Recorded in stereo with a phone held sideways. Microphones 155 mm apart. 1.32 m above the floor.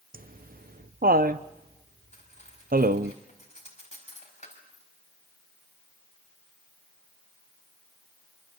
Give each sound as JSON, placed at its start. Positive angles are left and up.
{"t": 0.1, "sound": "laughter", "side_deg": -70, "distance_m": 0.6}
{"t": 2.1, "sound": "cutlery clinking", "side_deg": 50, "distance_m": 5.5}